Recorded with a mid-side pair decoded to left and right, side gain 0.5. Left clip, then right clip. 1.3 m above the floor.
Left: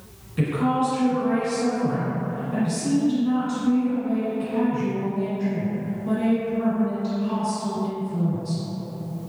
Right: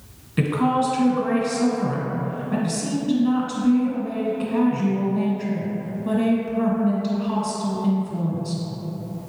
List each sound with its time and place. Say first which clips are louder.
0.4 s a woman speaking: right 2 dB; 50° right, 1.5 m